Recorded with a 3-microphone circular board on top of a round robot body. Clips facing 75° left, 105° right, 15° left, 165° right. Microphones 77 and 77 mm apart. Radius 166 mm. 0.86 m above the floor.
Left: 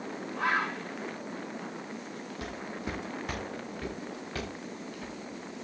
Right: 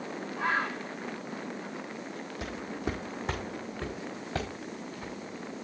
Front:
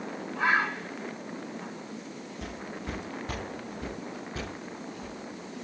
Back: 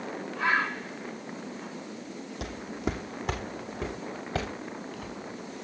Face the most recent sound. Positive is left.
turn(degrees=-170)